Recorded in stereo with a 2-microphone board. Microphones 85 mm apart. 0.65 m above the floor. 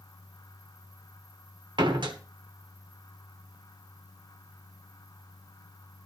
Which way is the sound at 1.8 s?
65° right (ahead or behind).